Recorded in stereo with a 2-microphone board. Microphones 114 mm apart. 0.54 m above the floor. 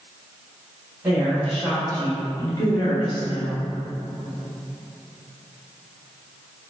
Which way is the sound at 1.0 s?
5° right (ahead or behind).